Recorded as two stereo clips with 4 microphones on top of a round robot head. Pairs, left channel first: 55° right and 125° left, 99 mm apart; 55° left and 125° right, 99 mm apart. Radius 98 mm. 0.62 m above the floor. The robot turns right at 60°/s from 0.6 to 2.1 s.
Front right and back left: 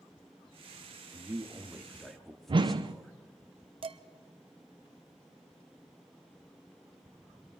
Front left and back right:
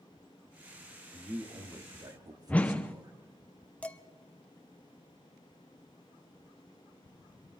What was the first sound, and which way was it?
A man speaking, 160° left.